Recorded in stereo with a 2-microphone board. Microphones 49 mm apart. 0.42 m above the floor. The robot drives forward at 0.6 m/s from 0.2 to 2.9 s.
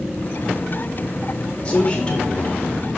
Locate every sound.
1.6 s a man speaking: 25° left (ahead or behind), 0.8 m; by 2.9 s 20° left (ahead or behind), 1.3 m